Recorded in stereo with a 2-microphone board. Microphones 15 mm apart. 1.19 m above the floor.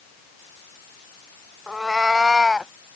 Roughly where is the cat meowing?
Right.